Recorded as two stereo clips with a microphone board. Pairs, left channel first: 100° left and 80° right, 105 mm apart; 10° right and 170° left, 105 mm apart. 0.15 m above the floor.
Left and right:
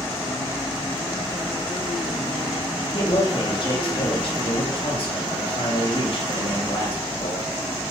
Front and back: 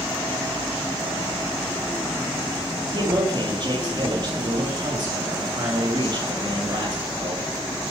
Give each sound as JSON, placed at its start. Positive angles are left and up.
{"t": 2.9, "sound": "a man speaking", "azimuth_deg": 130, "distance_m": 5.5}